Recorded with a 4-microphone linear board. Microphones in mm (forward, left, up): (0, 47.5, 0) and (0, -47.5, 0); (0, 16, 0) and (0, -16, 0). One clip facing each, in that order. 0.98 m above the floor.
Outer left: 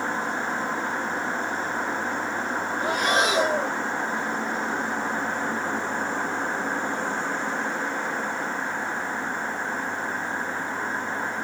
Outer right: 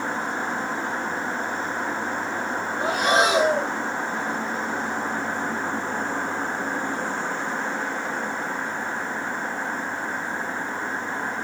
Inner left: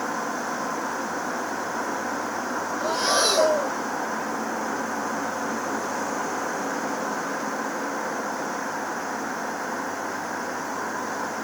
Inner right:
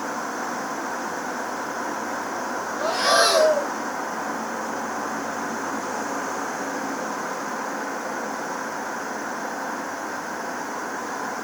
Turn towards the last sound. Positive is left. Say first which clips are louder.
# outer right 3 dB, inner right 4 dB
turn(degrees=-70)  # may be behind; listen again after turning